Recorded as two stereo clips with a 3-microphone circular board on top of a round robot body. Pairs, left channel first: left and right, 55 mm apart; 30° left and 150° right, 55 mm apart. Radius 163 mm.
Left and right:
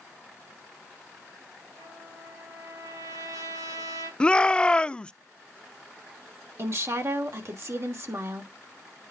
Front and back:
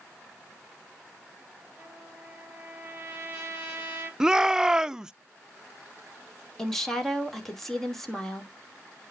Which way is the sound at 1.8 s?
85° right.